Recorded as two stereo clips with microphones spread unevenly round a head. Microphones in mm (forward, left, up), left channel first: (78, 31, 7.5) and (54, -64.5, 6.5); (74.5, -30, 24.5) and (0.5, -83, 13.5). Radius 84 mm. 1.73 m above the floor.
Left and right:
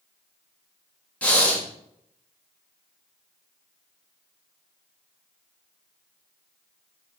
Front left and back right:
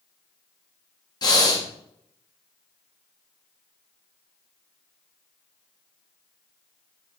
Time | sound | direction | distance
1.2 | breathing | straight ahead | 1.3 m